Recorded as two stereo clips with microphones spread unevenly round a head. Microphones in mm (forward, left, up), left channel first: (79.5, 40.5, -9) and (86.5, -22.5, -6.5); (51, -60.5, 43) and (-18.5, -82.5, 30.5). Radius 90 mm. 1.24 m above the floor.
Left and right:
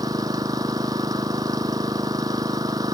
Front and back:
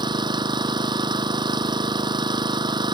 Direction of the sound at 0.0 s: 150° right.